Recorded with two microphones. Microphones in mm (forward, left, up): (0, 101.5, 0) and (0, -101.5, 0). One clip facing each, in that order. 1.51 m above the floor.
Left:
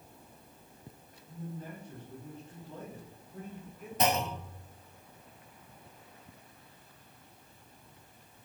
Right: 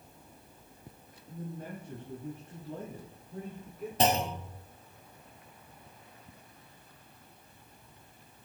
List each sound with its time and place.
1.3 s a man speaking: 60° right (ahead or behind), 3 m; by 3.9 s 55° right (ahead or behind), 5 m
4.0 s a clunk: 30° right (ahead or behind), 1.9 m